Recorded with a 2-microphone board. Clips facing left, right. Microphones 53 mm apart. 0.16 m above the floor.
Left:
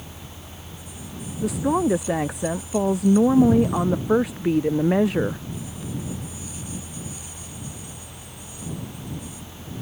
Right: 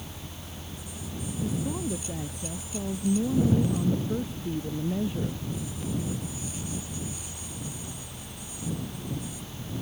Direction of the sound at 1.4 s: 85° left.